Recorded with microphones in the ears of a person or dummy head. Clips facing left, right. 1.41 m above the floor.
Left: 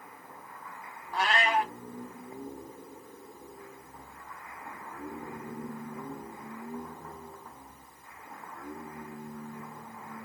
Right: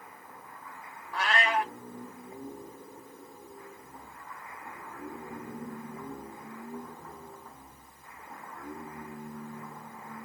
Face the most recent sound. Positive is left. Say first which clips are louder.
# left 1 dB
turn(degrees=25)  # may be behind; listen again after turning